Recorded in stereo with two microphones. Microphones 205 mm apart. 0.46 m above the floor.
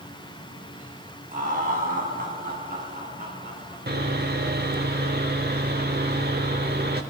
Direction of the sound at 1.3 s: 40° right (ahead or behind).